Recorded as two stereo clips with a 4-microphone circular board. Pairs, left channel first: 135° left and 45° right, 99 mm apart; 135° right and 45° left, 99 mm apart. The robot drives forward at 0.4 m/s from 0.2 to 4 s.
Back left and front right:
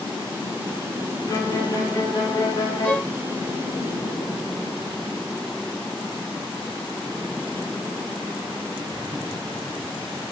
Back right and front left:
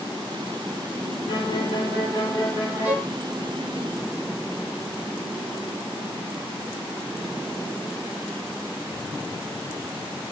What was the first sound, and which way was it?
A violin, 170° right.